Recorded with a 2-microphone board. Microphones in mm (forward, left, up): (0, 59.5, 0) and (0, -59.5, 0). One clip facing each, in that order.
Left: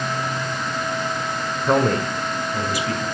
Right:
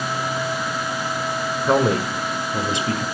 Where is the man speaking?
Centre (ahead or behind), 1.8 m; by 3.0 s 25° right (ahead or behind), 3.5 m.